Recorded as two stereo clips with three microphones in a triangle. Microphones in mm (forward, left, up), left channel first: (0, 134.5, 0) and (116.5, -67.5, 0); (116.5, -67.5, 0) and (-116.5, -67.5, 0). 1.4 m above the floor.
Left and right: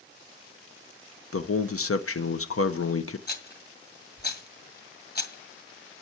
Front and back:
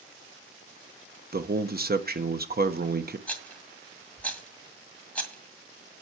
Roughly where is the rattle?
Left.